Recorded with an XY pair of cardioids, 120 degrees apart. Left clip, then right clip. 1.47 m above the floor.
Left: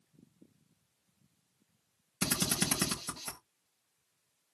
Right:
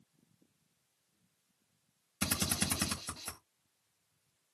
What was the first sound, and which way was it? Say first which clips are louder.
A drill: left 2 dB; 10° left.